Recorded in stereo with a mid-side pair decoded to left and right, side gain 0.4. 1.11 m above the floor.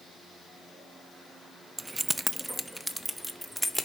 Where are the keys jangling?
25° right, 0.6 m; by 3.9 s 5° left, 2.5 m.